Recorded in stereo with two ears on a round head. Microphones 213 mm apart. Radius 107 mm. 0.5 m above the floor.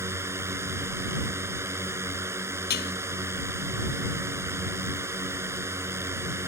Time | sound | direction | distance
0.0 | a drone | 10° right (ahead or behind) | ?
2.7 | dishes clattering | 45° left (ahead or behind) | ?